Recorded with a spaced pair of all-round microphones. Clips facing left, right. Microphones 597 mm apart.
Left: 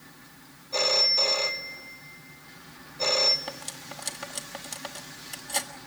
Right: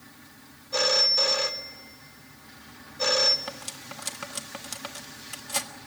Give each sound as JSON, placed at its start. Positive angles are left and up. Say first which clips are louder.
{"t": 0.7, "sound": "a phone ringing", "louder": "right 1 dB", "side_deg": -40, "distance_m": 1.0}
{"t": 3.5, "sound": "cutlery clinking", "louder": "even", "side_deg": -35, "distance_m": 1.3}